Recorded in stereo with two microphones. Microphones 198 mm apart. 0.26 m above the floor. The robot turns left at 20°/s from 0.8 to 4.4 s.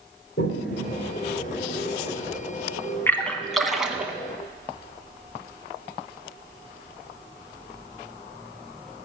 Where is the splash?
10° left (ahead or behind), 1.1 m; by 4.1 s 10° right (ahead or behind), 1.1 m.